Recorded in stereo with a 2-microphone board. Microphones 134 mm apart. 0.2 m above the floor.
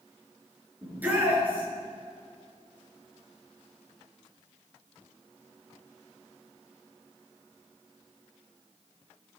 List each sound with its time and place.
0.8 s a shout: 15° right (ahead or behind), 2.5 m